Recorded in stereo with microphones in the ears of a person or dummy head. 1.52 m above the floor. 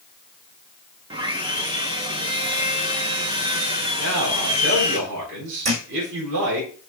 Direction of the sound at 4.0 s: 70° right (ahead or behind).